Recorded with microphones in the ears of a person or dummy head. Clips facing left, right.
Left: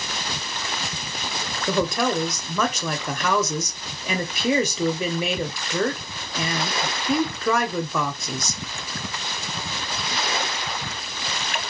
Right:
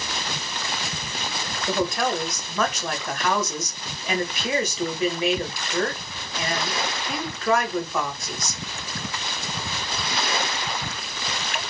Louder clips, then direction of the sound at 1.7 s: Left 2 dB; 85° left.